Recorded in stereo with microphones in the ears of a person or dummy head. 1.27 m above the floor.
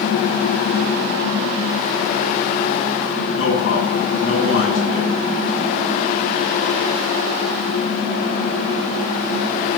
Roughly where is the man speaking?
Left.